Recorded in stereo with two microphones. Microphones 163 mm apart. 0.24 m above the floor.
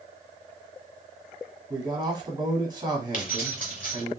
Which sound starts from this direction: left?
Keys jangling, at 3.1 s.